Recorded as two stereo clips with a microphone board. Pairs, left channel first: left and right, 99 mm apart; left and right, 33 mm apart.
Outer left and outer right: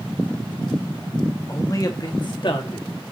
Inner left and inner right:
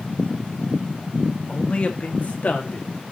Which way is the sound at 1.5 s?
30° left (ahead or behind).